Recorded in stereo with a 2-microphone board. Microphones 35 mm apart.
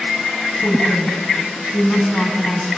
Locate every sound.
0.6 s a woman speaking: 80° left, 4.5 m